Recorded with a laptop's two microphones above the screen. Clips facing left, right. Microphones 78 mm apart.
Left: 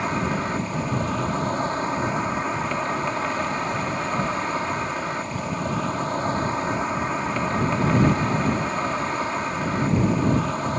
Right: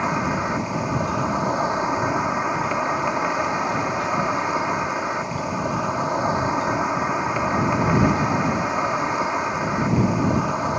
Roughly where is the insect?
Centre.